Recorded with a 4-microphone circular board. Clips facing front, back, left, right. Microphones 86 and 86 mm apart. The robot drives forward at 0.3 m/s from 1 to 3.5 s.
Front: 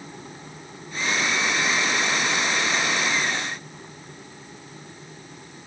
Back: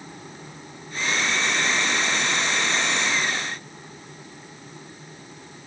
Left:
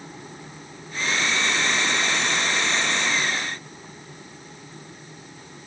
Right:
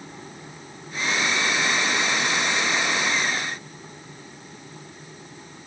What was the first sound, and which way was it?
Only background noise.